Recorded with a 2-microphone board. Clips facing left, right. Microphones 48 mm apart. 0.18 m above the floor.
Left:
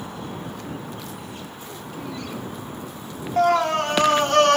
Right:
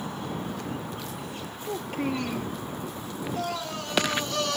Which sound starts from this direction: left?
A scream, at 3.4 s.